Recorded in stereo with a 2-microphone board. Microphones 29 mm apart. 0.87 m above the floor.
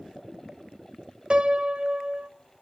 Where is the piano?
35° right (ahead or behind), 0.6 m.